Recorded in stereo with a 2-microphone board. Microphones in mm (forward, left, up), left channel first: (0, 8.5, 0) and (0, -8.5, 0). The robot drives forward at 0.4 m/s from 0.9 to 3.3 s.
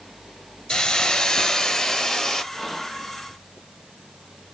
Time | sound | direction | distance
0.7 | a hiss | 45° left (ahead or behind) | 0.6 m
2.5 | whispering | 15° left (ahead or behind) | 1.2 m